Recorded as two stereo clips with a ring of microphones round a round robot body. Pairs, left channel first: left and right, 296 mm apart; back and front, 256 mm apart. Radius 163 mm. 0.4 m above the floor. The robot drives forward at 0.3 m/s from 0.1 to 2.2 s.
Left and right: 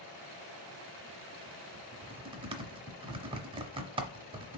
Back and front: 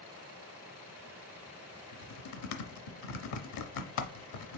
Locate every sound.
1.9 s typing on a keyboard: 160° right, 0.6 m; by 4.6 s 165° right, 0.7 m